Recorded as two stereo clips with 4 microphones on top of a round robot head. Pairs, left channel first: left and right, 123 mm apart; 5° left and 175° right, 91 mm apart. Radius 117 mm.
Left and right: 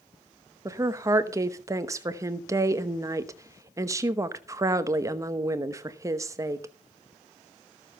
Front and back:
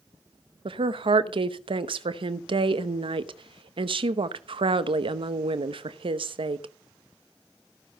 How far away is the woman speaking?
About 1.0 m.